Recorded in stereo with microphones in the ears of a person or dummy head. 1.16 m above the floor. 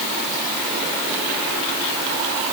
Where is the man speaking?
No man speaking in this recording.